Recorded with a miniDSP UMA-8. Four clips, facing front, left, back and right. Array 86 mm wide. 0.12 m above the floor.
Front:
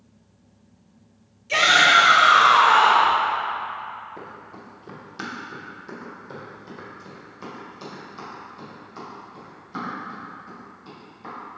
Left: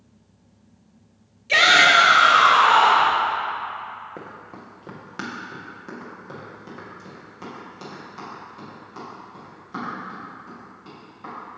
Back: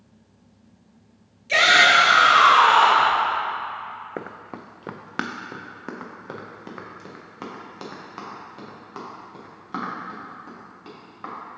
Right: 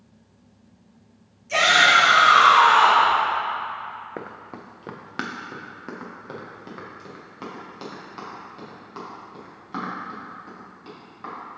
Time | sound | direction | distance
1.5 | a shout | 115° left | 1.5 m
4.2 | running footsteps | 160° right | 0.5 m